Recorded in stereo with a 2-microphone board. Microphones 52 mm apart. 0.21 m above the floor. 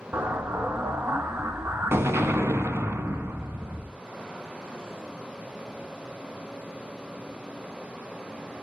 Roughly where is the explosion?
Right.